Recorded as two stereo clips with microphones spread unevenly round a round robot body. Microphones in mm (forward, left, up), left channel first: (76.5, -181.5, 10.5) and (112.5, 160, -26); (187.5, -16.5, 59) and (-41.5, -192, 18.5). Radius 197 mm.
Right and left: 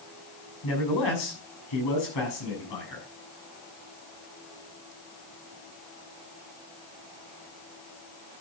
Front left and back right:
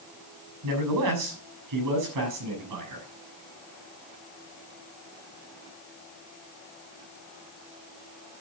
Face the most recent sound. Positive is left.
turn(degrees=-140)